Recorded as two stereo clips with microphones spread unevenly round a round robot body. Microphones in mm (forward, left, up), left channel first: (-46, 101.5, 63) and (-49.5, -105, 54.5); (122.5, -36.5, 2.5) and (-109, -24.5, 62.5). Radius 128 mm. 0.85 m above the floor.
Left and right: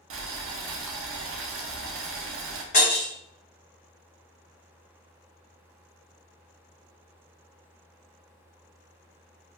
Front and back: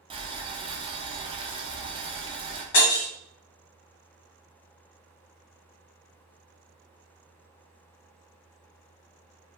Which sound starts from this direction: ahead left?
Breaking glass, at 2.7 s.